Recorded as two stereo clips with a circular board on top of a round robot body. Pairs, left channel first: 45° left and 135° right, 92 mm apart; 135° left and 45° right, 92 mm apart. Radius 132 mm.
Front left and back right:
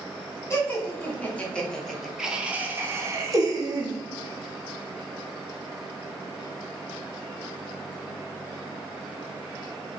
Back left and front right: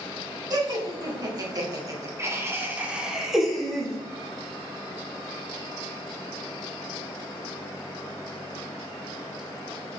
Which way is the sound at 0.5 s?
15° right.